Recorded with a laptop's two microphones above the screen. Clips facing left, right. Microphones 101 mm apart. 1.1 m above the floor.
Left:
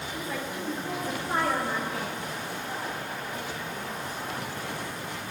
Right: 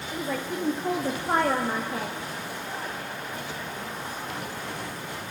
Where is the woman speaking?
70° right (ahead or behind), 1.4 m; by 2.1 s 25° right (ahead or behind), 1.4 m.